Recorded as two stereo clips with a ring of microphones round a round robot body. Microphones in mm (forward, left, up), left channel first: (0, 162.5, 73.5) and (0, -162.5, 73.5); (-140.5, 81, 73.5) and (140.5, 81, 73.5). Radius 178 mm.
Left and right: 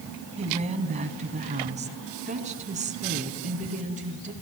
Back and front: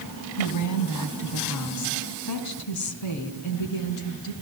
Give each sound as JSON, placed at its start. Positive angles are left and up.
{"t": 0.4, "sound": "a woman speaking", "azimuth_deg": -160, "distance_m": 3.0}